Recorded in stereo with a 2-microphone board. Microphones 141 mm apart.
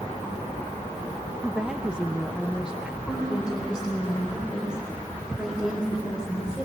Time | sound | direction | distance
1.4 | a woman speaking | 5° right (ahead or behind) | 0.7 m
3.1 | a woman speaking | 5° right (ahead or behind) | 4 m